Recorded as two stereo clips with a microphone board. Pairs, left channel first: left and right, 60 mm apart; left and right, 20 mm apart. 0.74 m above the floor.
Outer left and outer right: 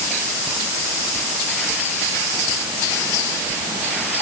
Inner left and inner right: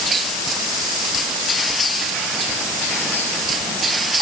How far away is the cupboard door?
I don't hear a cupboard door.